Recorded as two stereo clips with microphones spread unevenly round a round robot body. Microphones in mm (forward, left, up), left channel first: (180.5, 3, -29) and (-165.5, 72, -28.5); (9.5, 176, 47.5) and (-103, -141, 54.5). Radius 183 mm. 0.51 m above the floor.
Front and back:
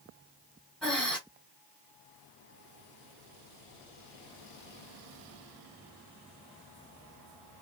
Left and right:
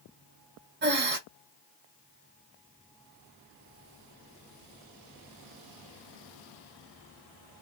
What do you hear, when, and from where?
0.8 s breathing: 95° right, 0.6 m